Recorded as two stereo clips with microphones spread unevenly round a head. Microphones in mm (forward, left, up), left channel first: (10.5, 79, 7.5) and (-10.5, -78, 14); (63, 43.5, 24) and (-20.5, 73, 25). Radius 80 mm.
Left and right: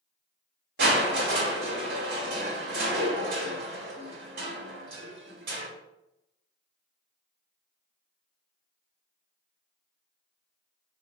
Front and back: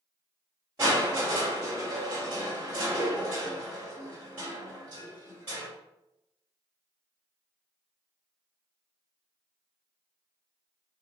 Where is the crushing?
125° right, 1.9 m.